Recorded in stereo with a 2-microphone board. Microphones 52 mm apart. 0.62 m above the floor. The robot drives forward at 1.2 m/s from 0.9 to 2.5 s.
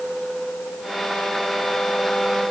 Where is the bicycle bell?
I don't hear a bicycle bell.